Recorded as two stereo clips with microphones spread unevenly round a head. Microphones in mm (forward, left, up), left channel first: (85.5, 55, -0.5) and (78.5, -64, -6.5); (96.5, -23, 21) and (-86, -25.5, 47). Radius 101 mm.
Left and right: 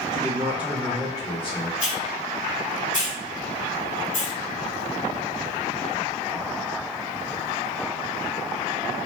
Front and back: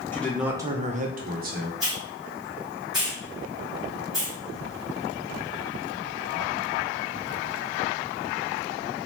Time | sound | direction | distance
0.1 | a man speaking | 65° right | 0.6 m
1.8 | a hiss | 95° left | 1.8 m